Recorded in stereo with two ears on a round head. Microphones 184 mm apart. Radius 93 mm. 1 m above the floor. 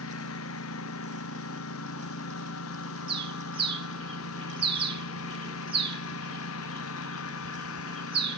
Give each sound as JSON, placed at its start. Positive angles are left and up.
{"t": 0.0, "sound": "a lawn mower", "side_deg": 80}
{"t": 3.1, "sound": "a bird", "side_deg": -25}